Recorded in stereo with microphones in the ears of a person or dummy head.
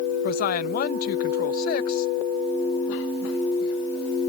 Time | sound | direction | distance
0.2 | a woman speaking | 50° left (ahead or behind) | ?